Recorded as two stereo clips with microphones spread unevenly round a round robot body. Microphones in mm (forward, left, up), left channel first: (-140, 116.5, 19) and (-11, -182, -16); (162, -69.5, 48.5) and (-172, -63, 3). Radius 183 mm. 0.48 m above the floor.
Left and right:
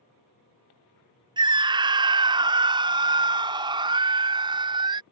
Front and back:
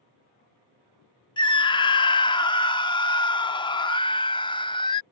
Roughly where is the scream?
Right.